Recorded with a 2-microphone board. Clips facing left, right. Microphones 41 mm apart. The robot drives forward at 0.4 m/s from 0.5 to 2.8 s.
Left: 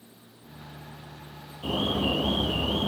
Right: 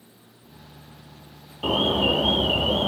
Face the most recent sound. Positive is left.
turn(degrees=-55)  # may be behind; listen again after turning